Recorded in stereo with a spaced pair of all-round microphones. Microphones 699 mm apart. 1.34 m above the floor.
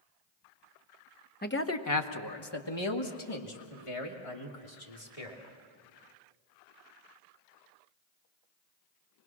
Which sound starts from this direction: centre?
A man speaking, at 1.4 s.